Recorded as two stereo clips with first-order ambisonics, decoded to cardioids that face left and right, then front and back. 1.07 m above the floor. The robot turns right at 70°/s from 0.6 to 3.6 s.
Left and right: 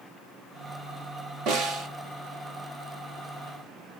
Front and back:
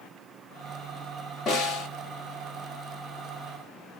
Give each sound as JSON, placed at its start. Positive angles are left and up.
{"t": 1.5, "sound": "a snare drum", "azimuth_deg": -55, "distance_m": 1.6}